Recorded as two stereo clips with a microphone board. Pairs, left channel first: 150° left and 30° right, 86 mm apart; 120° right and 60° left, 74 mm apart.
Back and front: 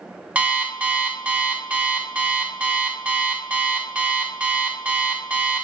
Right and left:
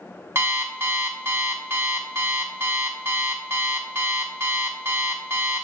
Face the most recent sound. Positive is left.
turn(degrees=35)